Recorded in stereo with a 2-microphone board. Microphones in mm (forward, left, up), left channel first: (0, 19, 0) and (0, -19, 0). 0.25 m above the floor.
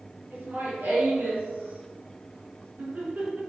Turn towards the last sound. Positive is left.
turn(degrees=-45)  # may be behind; listen again after turning